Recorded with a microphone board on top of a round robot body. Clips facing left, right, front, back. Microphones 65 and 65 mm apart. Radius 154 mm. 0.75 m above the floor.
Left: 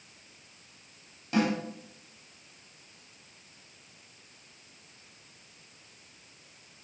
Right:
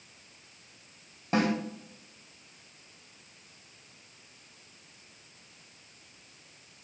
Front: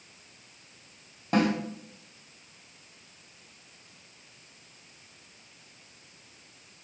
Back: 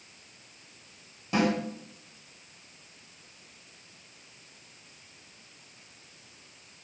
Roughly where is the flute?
I don't hear a flute.